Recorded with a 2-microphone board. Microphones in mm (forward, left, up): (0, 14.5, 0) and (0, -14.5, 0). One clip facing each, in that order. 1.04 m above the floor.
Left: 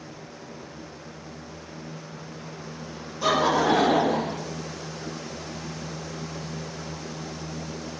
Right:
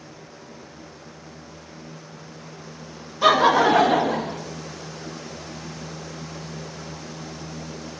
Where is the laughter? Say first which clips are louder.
Right 5 dB; 45° right (ahead or behind), 1.8 m; by 4.4 s 65° right (ahead or behind), 1.6 m.